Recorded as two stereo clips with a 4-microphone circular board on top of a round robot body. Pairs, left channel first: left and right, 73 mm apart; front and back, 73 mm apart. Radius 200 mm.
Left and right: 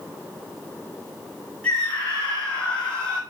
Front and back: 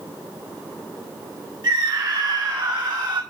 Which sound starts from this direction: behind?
A scream, at 1.6 s.